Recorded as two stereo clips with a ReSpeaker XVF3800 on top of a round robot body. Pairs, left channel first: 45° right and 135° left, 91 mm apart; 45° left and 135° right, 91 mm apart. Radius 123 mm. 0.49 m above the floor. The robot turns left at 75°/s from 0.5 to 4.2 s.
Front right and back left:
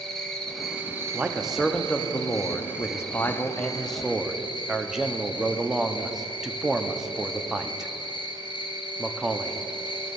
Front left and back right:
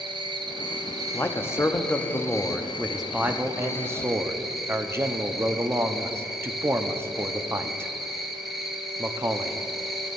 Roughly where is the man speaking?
Left.